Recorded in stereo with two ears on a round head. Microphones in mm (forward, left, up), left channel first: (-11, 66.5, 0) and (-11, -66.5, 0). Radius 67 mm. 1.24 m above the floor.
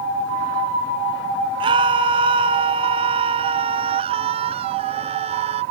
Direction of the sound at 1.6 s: 35° right (ahead or behind).